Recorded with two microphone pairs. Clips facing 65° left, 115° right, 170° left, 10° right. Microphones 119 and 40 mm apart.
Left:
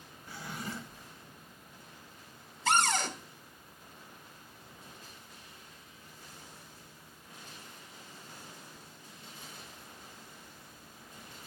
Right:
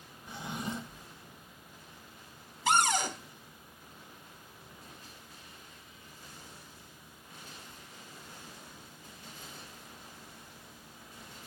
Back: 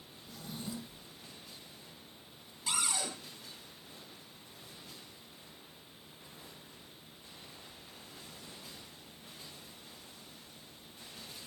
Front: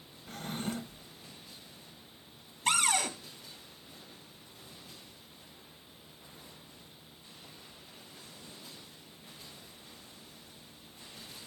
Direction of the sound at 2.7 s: 40° right.